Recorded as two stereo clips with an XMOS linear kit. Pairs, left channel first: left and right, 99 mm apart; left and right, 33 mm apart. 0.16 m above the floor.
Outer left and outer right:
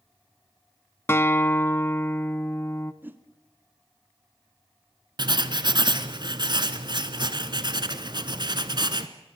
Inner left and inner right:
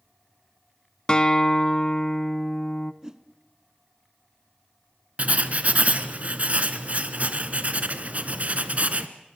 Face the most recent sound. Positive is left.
turn(degrees=-50)  # may be behind; listen again after turning